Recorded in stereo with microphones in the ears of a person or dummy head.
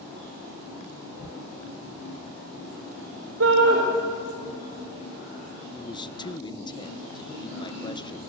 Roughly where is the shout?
Right.